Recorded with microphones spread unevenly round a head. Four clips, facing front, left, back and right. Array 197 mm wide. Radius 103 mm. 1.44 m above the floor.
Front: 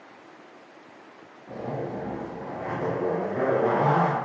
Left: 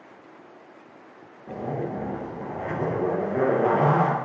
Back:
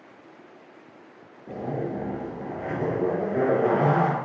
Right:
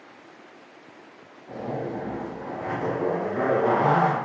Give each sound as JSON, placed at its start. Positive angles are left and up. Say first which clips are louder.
{"t": 1.5, "sound": "a zipper", "louder": "left 1 dB, back 2 dB", "azimuth_deg": 150, "distance_m": 0.8}